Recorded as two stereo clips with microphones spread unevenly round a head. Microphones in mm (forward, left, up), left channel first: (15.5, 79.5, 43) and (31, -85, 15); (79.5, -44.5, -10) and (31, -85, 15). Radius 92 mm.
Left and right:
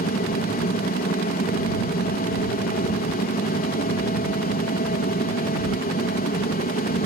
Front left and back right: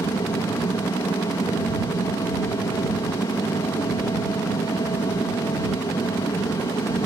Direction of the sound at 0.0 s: 60° left.